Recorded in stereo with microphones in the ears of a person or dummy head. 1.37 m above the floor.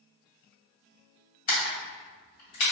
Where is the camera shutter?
50° left (ahead or behind), 1.6 m.